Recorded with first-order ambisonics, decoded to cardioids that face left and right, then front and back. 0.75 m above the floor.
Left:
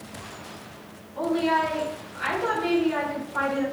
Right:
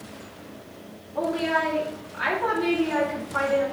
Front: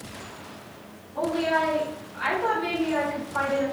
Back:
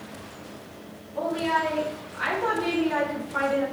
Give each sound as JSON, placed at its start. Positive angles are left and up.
{"t": 1.1, "sound": "a woman speaking", "azimuth_deg": -85, "distance_m": 1.4}